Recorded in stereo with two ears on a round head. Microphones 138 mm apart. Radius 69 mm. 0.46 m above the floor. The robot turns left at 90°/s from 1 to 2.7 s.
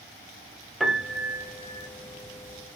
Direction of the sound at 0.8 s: Straight ahead.